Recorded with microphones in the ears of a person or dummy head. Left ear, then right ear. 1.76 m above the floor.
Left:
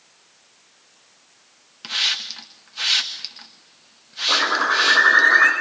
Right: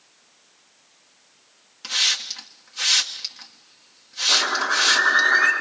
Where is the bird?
75° left (ahead or behind), 7 m.